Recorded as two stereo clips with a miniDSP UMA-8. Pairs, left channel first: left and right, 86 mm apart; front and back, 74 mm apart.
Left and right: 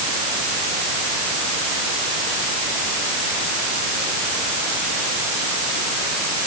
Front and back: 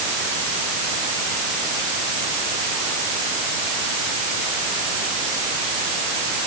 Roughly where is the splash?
No splash in this recording.